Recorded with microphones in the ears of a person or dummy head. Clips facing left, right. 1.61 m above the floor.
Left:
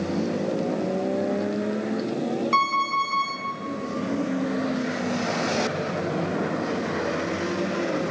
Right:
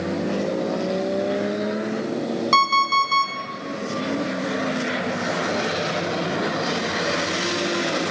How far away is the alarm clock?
About 3 m.